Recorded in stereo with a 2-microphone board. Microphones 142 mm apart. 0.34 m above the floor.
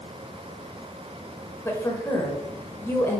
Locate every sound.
1.6 s a woman speaking: 15° left (ahead or behind), 0.9 m